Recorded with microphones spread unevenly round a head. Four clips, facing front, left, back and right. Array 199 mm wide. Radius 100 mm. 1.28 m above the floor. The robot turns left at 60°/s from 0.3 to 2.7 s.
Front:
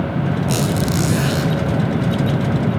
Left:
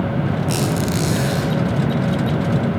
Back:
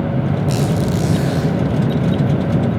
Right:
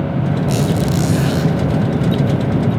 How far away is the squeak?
About 8 m.